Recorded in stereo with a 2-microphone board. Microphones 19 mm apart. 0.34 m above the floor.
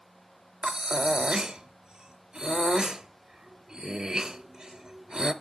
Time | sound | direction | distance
0.6 | breathing | 40° right (ahead or behind) | 0.9 m